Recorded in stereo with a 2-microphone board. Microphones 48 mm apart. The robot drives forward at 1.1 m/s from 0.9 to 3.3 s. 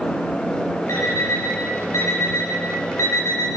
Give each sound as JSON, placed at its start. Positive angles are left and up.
{"t": 0.9, "sound": "an alarm clock", "side_deg": 70, "distance_m": 7.0}